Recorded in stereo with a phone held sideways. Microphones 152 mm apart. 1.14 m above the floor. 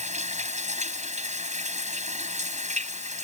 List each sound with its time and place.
0.0 s running water: 50° right (ahead or behind)